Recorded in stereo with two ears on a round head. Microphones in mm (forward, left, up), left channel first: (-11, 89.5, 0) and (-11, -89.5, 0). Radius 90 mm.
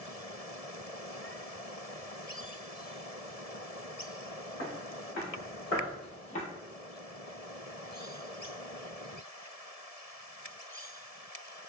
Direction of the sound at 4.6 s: 60° left (ahead or behind).